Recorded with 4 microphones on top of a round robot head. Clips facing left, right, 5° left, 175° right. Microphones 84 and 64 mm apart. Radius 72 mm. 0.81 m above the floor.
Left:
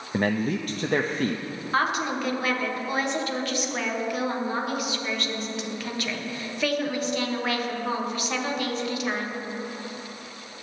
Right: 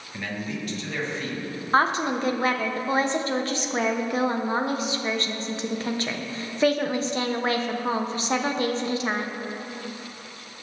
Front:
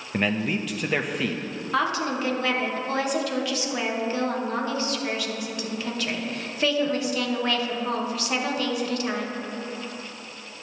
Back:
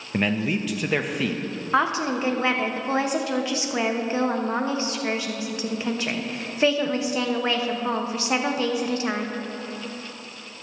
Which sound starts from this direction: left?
A man speaking, at 0.1 s.